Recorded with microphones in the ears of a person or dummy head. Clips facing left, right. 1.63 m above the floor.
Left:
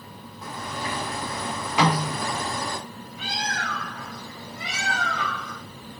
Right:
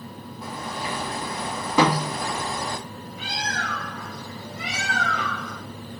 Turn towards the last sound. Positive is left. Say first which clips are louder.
# even
turn(degrees=-60)  # may be behind; listen again after turning